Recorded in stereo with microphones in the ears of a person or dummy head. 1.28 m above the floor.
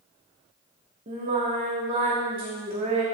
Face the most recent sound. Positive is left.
turn(degrees=-35)  # may be behind; listen again after turning